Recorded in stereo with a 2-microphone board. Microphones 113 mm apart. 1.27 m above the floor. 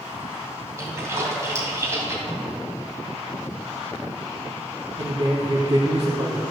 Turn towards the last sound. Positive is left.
turn(degrees=-50)  # may be behind; listen again after turning